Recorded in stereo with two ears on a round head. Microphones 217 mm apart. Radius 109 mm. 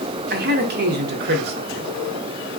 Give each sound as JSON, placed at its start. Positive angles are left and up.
{"t": 0.3, "sound": "a man speaking", "side_deg": -40, "distance_m": 0.6}